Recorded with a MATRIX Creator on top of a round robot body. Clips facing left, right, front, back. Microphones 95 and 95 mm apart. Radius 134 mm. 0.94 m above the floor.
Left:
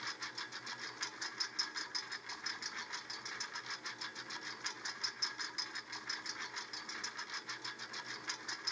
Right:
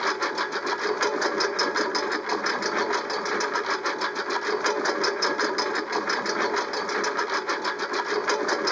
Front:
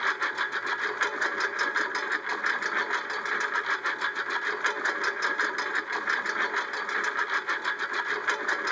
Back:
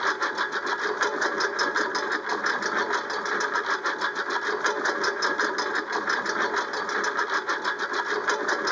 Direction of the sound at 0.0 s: 110° right.